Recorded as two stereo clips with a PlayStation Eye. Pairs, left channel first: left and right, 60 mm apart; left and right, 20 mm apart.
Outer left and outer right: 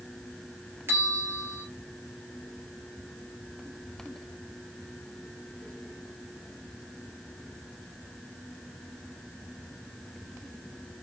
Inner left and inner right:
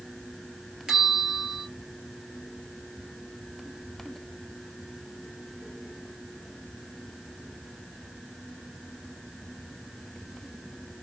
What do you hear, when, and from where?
0.9 s a bell: 45° right (ahead or behind), 2.5 m